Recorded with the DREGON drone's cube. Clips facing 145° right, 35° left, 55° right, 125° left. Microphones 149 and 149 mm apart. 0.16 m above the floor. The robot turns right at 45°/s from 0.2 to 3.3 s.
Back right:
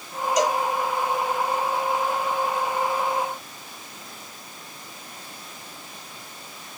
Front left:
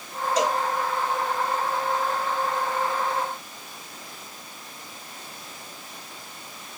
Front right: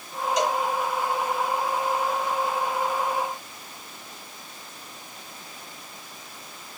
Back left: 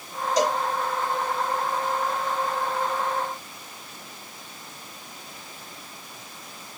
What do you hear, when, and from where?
0.4 s a cowbell: 85° left, 0.7 m; by 0.6 s 95° left, 0.7 m